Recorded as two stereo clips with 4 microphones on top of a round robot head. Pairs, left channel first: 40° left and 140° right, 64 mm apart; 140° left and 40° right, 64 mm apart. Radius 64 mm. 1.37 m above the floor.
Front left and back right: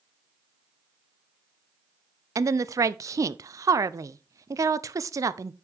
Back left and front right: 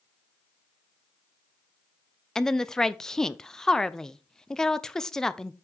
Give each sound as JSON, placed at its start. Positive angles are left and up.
{"t": 2.4, "sound": "a woman speaking", "azimuth_deg": -140, "distance_m": 0.6}